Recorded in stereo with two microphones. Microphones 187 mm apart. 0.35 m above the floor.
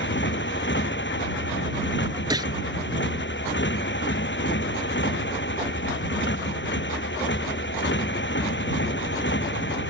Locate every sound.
0.0 s a motorcycle: 80° left
2.3 s a gunshot: 25° right (ahead or behind)